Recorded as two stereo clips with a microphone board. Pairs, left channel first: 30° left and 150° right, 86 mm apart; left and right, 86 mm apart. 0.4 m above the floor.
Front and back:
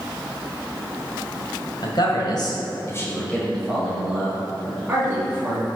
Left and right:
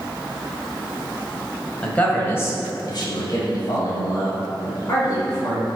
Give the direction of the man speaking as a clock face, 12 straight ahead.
12 o'clock.